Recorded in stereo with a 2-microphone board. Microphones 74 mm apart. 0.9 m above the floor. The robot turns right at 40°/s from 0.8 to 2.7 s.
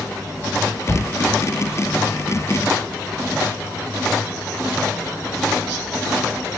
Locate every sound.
0.9 s a shout: 25° left (ahead or behind), 3 m; by 1.1 s 15° left (ahead or behind), 3 m